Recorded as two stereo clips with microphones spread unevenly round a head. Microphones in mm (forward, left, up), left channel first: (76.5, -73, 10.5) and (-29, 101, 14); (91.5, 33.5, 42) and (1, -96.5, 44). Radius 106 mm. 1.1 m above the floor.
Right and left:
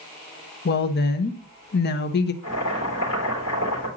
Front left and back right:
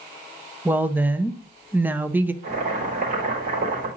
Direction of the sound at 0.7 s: 50° right.